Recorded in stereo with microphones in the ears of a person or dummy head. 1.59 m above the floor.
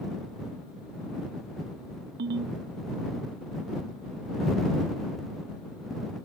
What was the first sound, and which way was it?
A ringtone, 60° right (ahead or behind).